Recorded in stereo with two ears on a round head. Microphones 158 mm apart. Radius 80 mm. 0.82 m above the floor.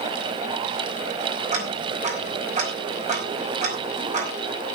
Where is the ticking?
45° right (ahead or behind), 5 m.